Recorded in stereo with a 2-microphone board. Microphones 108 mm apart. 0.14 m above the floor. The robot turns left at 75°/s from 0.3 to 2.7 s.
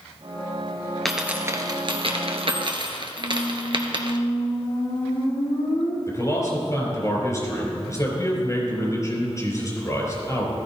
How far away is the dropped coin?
About 1.3 m.